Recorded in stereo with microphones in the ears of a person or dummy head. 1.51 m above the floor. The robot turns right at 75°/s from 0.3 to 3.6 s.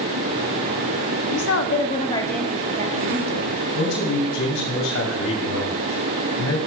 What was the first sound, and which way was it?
A woman speaking, 100° left.